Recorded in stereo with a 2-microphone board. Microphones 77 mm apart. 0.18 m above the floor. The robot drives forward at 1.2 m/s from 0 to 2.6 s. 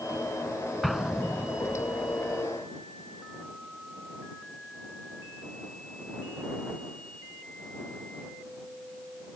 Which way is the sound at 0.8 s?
Centre (ahead or behind).